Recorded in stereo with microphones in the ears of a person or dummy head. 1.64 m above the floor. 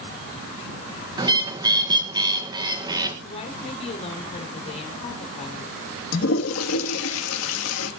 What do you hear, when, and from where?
1.2 s a bird: 20° right (ahead or behind), 1.5 m
3.2 s a woman speaking: 35° left (ahead or behind), 5 m
6.1 s a toilet flushing: 85° left, 3 m